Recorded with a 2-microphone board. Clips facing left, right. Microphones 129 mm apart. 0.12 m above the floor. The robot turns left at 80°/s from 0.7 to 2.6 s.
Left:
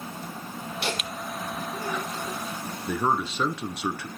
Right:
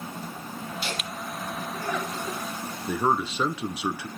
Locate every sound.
0.8 s laughter: 70° left (ahead or behind), 5.5 m; by 2.4 s 25° right (ahead or behind), 5.5 m
2.9 s a man speaking: 10° right (ahead or behind), 1.2 m